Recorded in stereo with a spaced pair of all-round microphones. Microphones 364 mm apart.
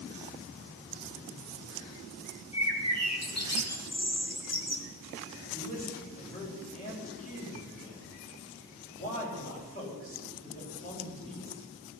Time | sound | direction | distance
2.5 | a bird | 45° left (ahead or behind) | 1.3 m
5.5 | a man speaking | 20° left (ahead or behind) | 4.5 m